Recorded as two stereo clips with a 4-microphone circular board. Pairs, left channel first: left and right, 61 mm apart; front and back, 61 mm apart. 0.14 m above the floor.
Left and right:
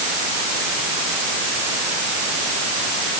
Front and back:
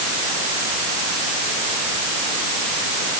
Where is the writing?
I don't hear writing.